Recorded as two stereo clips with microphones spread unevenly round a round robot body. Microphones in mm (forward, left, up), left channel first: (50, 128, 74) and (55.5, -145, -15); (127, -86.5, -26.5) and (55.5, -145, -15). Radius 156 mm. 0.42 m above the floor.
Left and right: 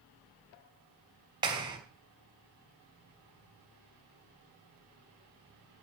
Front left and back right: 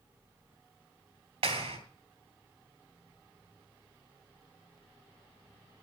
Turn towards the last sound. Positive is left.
turn(degrees=-155)